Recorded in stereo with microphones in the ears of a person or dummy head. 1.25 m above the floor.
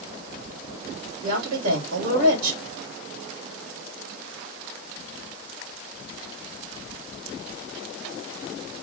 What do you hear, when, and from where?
1.2 s a woman speaking: 80° right, 2.5 m